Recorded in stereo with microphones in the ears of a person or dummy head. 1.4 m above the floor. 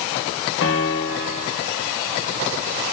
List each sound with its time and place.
0.6 s a piano: 75° left (ahead or behind), 3 m